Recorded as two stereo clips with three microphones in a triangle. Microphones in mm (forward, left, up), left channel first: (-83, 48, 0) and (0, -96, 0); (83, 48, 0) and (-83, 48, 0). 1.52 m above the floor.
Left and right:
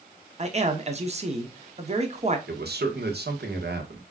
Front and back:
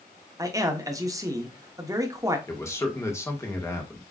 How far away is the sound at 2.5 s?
About 1.4 m.